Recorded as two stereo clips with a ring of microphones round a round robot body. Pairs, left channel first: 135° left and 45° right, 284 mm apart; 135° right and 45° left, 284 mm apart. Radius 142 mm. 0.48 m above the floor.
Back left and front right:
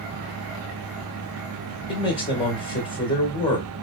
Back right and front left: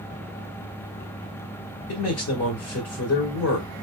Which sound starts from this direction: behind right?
A man speaking, at 1.9 s.